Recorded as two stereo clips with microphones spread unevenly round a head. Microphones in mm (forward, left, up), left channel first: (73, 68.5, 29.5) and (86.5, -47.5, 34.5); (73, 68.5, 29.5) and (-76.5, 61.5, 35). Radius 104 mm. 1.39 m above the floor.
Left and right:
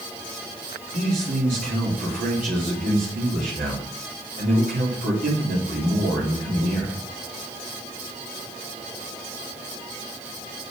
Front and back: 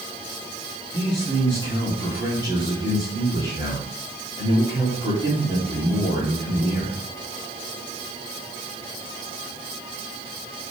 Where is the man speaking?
105° right, 3 m.